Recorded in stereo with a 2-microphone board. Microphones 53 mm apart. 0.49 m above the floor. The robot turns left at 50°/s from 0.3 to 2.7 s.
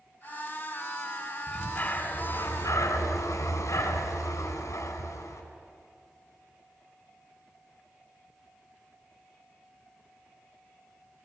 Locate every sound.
1.5 s breathing: 160° left, 3.5 m; by 5.4 s 100° left, 3.5 m